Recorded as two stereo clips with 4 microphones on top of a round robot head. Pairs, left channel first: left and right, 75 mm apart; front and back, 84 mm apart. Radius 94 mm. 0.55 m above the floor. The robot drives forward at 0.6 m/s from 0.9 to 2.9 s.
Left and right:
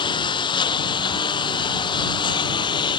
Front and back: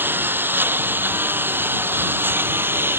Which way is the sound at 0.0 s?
115° left.